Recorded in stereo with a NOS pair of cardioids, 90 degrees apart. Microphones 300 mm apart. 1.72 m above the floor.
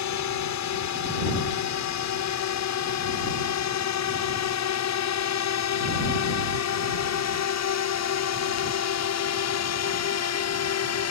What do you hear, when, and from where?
0.0 s a drone: 70° left; by 11.1 s 60° left